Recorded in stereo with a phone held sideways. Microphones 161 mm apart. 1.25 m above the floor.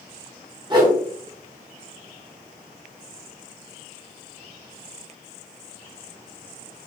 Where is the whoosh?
30° right (ahead or behind), 1.0 m.